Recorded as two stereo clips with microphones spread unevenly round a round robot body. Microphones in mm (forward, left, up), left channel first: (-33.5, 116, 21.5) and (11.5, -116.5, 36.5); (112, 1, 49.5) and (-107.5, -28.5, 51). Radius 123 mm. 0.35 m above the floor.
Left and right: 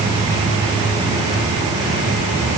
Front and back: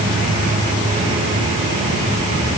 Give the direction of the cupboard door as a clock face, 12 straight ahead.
No cupboard door in this recording.